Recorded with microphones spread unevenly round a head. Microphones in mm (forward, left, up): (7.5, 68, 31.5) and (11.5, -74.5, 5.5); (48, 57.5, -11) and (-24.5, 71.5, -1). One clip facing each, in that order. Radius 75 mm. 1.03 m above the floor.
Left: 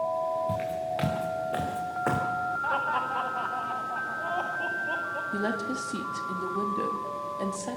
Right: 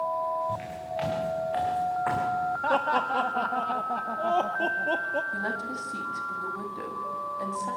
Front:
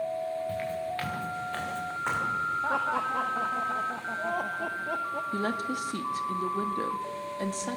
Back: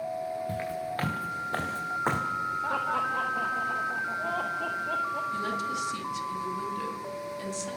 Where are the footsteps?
120° left, 5.5 m; by 2.2 s 135° left, 3.5 m.